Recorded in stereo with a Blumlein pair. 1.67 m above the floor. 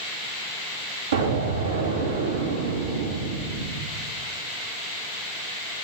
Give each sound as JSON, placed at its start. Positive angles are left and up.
{"t": 1.1, "sound": "an explosion", "azimuth_deg": -65, "distance_m": 3.0}